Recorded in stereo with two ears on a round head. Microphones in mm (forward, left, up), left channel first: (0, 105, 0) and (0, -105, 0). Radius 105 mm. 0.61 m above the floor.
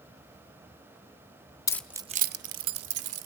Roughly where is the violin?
No violin in this recording.